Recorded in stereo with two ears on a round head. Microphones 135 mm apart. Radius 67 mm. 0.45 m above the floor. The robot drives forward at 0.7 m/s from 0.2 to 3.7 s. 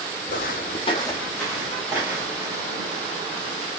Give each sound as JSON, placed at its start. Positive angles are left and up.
{"t": 0.3, "sound": "footsteps", "side_deg": 55, "distance_m": 1.0}